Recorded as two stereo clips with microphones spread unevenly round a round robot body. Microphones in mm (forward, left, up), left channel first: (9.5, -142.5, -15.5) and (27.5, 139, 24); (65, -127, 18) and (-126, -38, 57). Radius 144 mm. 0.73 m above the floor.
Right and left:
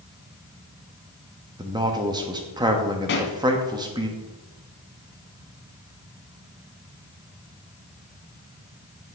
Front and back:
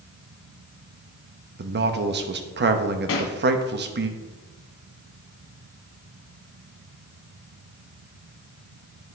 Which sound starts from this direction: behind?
A man speaking, at 1.6 s.